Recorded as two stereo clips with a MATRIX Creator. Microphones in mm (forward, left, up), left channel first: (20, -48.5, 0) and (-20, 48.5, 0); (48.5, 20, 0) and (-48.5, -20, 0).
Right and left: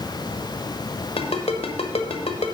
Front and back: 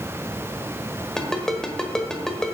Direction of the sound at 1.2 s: 60° right.